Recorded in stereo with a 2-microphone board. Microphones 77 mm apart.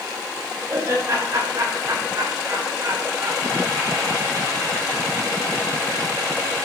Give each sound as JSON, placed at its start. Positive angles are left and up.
{"t": 0.7, "sound": "laughter", "side_deg": -45, "distance_m": 5.5}